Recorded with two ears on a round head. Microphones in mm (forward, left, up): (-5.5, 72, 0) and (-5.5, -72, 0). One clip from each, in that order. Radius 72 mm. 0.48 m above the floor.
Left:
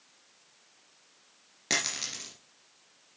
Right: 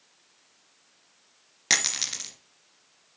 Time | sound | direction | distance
1.7 | a dropped coin | 45° right (ahead or behind) | 2 m